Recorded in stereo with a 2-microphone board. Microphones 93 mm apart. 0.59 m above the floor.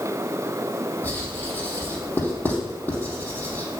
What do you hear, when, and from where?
1.0 s writing: 20° left (ahead or behind), 3.5 m